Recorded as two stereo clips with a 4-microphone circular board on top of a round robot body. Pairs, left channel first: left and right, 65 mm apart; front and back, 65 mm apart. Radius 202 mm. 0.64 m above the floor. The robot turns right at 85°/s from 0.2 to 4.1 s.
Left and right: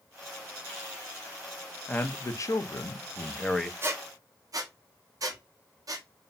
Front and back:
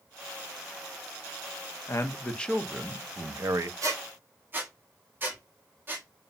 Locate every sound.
1.9 s a man speaking: 30° left, 0.6 m; by 3.7 s 175° right, 0.6 m
3.8 s a squeak: 145° right, 0.6 m; by 6.1 s 120° right, 0.6 m